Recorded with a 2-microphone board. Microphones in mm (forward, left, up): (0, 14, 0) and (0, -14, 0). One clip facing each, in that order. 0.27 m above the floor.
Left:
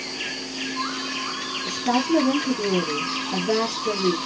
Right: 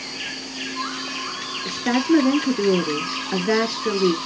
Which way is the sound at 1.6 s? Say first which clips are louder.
Right 2 dB; 50° right (ahead or behind).